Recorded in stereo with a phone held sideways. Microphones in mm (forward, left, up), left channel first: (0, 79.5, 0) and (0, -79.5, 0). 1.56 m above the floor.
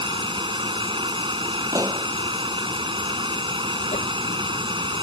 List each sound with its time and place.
0.0 s running water: 30° right (ahead or behind)
1.7 s a pop: 20° right (ahead or behind)
3.9 s a whoosh: 45° left (ahead or behind)